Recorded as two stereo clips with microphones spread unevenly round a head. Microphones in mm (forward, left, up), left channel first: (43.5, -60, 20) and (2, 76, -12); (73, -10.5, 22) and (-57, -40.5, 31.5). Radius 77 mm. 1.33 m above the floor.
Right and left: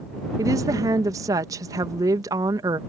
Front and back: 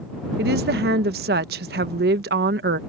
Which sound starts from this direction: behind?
A woman speaking, at 0.4 s.